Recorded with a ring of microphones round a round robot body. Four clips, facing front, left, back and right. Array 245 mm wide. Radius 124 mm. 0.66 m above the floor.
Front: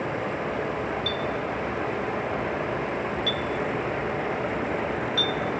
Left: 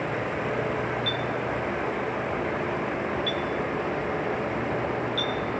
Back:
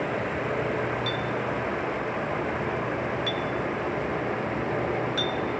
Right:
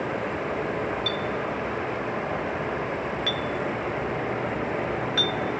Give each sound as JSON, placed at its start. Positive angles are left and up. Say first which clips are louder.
{"t": 1.1, "sound": "a clink", "louder": "even, even", "azimuth_deg": -95, "distance_m": 0.8}